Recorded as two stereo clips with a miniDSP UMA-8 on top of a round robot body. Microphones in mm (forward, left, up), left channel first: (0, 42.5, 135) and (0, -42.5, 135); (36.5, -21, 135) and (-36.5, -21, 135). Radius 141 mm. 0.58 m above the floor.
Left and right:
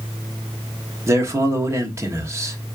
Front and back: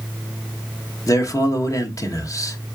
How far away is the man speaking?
About 1.3 m.